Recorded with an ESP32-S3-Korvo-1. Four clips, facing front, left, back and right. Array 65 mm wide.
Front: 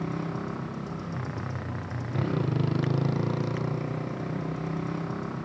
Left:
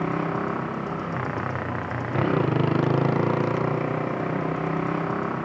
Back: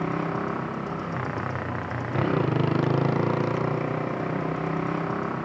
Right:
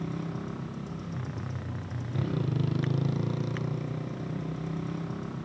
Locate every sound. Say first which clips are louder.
0.0 s a motorcycle: left 10 dB, back 5 dB; 120° left